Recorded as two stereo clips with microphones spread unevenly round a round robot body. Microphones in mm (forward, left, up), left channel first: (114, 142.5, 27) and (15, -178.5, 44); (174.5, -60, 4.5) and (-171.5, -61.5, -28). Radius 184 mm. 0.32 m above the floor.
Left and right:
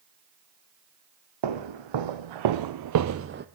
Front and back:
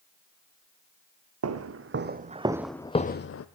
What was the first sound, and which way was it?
Footsteps, 130° right.